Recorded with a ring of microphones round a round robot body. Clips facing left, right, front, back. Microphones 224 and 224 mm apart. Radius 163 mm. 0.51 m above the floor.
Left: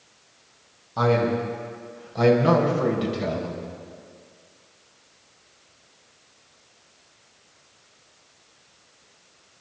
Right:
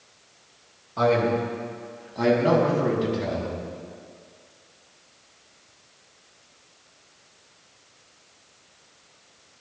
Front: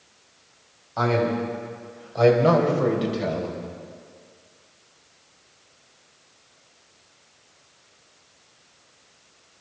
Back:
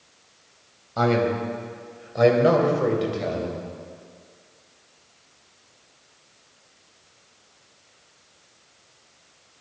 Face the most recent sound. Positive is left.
turn(degrees=75)